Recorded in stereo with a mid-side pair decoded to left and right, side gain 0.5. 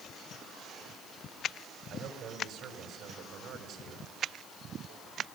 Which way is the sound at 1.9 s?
70° right.